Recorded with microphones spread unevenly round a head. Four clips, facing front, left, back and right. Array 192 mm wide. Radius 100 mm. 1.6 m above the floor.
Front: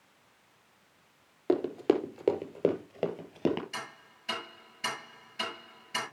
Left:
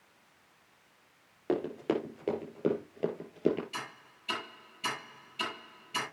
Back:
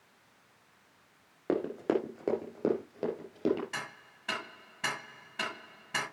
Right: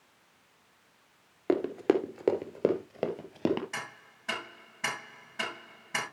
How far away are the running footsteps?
About 1.8 m.